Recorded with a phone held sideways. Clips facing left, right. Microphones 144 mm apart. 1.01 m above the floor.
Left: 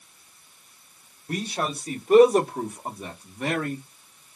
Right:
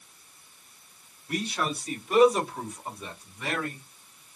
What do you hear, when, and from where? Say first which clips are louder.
1.3 s a man speaking: left 1 dB; 35° left (ahead or behind), 1.6 m; by 3.8 s 50° left (ahead or behind), 1.3 m